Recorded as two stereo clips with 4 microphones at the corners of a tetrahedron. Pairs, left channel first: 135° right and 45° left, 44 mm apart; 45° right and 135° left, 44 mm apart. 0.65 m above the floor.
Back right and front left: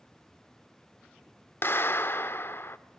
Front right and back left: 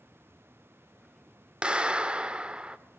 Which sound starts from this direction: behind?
A clap, at 1.6 s.